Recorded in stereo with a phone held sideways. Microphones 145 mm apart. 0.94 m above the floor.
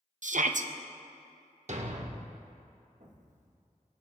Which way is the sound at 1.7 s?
50° right (ahead or behind).